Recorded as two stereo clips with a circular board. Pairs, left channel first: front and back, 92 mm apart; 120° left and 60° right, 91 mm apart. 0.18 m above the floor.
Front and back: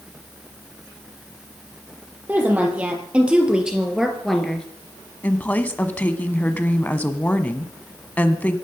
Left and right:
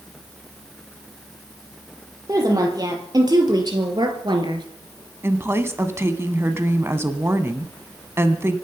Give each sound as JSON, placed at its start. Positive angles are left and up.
{"t": 2.3, "sound": "a woman speaking", "azimuth_deg": -110, "distance_m": 5.0}
{"t": 5.2, "sound": "a woman speaking", "azimuth_deg": -50, "distance_m": 1.4}